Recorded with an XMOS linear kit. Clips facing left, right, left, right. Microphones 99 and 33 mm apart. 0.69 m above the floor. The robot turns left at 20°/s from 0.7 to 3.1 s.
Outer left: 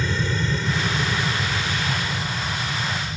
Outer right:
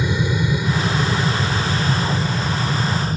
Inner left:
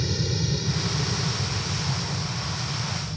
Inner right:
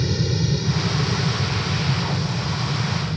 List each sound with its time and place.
0.0 s an aircraft: 15° right (ahead or behind); by 3.2 s 45° right (ahead or behind)